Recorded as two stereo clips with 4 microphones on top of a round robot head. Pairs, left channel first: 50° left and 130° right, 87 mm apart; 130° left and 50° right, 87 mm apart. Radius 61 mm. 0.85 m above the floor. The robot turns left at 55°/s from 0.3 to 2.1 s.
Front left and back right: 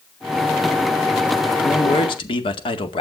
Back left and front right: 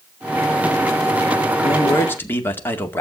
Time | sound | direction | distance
1.6 | a man speaking | 95° left | 2 m